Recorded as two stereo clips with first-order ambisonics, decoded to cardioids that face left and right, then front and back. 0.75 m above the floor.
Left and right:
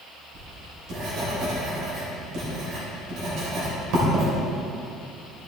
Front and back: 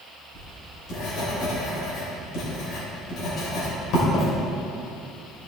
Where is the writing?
45° right, 3 m.